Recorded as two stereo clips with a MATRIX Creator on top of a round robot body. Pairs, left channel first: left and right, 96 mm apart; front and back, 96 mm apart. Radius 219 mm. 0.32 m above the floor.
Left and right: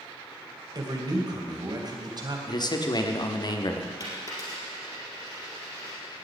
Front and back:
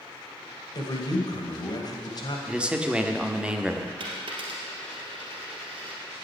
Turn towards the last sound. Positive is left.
turn(degrees=145)